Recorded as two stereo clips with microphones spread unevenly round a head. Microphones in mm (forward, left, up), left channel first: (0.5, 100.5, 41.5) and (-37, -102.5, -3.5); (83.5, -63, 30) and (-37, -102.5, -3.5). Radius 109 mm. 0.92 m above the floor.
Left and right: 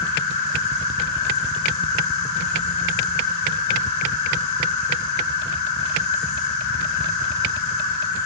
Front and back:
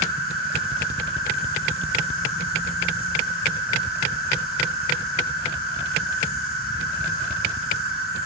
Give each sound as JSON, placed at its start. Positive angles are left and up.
{"t": 0.0, "sound": "an insect", "azimuth_deg": 70, "distance_m": 3.0}